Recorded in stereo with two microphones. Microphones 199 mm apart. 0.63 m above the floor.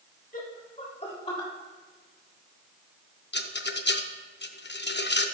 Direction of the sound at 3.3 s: 60° left (ahead or behind).